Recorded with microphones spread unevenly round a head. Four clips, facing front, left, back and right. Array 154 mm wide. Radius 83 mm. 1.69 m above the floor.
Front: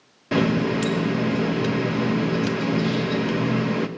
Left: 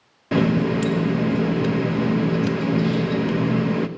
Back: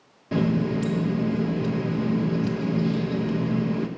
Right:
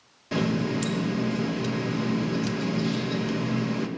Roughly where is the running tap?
Ahead left.